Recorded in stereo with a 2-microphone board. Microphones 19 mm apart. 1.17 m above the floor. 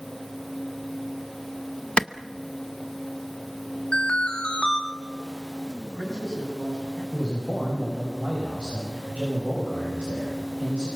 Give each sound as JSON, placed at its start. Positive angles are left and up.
{"t": 2.0, "sound": "a clap", "side_deg": 80, "distance_m": 0.8}
{"t": 3.9, "sound": "an alarm", "side_deg": 65, "distance_m": 3.5}
{"t": 5.8, "sound": "a man speaking", "side_deg": 15, "distance_m": 8.0}
{"t": 7.1, "sound": "a man speaking", "side_deg": -75, "distance_m": 7.5}